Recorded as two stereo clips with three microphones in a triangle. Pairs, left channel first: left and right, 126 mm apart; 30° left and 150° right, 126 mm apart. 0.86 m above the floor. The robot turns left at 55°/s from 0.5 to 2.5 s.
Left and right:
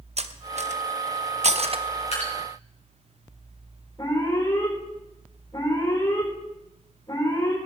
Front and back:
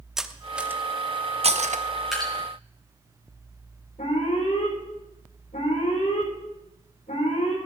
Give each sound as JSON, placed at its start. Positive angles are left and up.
{"t": 0.2, "sound": "cutlery clinking", "azimuth_deg": -65, "distance_m": 0.7}
{"t": 2.1, "sound": "dripping", "azimuth_deg": 120, "distance_m": 5.0}
{"t": 4.0, "sound": "an alarm", "azimuth_deg": 35, "distance_m": 4.0}